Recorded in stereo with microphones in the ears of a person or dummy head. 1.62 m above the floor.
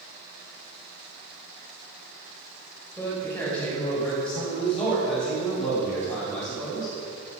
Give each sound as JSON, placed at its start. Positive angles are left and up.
{"t": 3.0, "sound": "a man speaking", "side_deg": 10, "distance_m": 6.5}